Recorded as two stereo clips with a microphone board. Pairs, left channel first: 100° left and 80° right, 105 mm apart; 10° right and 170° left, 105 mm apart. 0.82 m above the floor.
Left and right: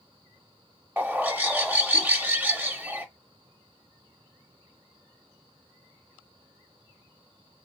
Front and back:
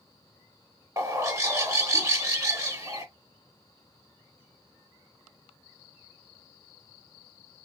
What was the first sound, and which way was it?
A bird, 145° right.